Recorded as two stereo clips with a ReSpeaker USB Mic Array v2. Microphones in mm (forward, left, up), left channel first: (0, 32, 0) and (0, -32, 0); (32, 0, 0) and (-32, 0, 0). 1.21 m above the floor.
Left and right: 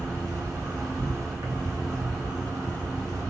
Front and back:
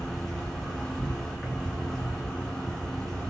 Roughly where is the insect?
Right.